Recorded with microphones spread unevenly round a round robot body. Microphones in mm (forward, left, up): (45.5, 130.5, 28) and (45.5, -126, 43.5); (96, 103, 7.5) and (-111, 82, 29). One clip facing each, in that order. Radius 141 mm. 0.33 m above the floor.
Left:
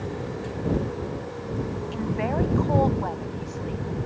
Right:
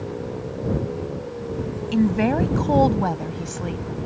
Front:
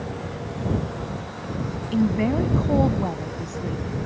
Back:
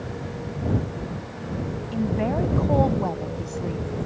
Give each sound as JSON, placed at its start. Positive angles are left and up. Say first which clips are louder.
{"t": 1.9, "sound": "a woman speaking", "louder": "right 10 dB, front 4 dB", "azimuth_deg": -55}